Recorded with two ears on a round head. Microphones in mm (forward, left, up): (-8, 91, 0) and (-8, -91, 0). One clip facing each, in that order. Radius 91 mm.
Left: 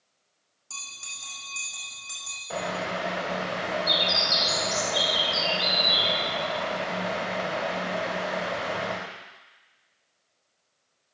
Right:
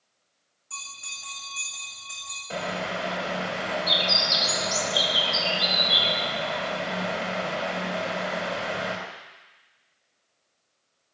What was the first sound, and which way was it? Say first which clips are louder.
A bell: right 2 dB; 55° left (ahead or behind).